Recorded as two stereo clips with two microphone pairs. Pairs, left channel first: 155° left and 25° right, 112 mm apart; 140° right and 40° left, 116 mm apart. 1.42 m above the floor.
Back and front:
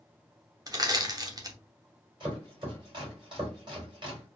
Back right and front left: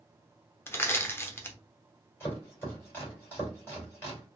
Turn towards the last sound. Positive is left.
turn(degrees=-70)